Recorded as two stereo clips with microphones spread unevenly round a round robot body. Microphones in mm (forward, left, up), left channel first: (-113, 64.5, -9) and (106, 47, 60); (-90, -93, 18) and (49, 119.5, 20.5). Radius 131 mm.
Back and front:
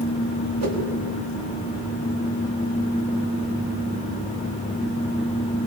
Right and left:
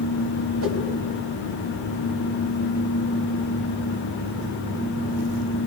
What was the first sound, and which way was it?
A whoosh, 15° left.